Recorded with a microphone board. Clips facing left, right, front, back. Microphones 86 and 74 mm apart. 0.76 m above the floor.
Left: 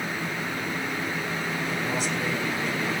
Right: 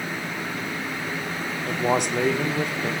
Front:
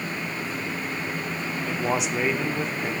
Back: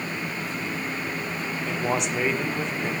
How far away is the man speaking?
About 1.5 m.